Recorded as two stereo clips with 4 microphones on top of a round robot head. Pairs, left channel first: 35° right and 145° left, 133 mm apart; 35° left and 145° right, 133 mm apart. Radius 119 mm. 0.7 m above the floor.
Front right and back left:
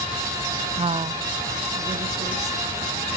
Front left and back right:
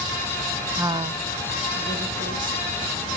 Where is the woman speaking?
140° left, 0.5 m; by 2.8 s 150° right, 3 m.